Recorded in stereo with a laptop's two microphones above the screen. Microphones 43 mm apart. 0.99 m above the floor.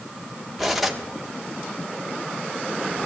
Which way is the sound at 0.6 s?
5° right (ahead or behind).